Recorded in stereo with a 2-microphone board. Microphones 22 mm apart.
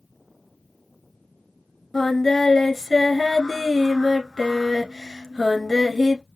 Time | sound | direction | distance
1.9 | singing | 20° left (ahead or behind) | 0.9 m